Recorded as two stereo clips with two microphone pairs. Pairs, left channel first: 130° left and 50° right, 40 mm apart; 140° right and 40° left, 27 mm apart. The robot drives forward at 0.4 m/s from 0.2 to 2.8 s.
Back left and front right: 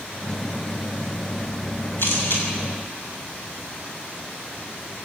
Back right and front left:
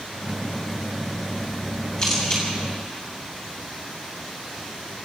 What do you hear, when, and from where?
2.0 s a camera shutter: 165° left, 7 m